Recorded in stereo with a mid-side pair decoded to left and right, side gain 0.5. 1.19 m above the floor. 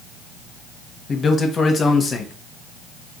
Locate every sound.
1.1 s a man speaking: 40° left, 1.1 m